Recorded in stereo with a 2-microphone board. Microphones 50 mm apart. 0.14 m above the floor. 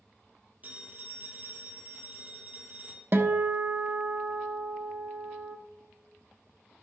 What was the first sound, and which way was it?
A phone ringing, 35° right (ahead or behind).